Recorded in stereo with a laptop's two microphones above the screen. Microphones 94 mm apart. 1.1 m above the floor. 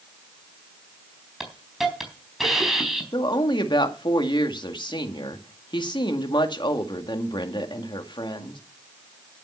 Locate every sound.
1.4 s a hiss: 5° right (ahead or behind), 4 m
3.1 s a woman speaking: 55° left (ahead or behind), 2 m